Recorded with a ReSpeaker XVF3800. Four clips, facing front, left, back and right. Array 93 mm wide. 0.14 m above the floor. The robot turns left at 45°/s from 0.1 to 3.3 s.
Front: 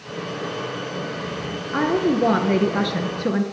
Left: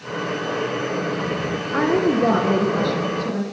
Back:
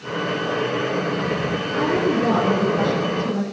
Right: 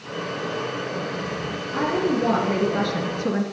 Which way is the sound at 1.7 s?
50° left.